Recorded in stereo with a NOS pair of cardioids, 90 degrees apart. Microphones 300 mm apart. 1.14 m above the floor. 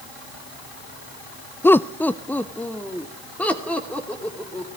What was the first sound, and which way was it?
Laughter, 5° left.